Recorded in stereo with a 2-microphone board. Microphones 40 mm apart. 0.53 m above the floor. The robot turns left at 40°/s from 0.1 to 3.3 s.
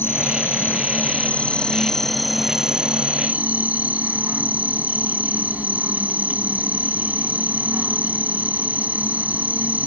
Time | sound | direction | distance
0.0 | an insect | 90° left | ?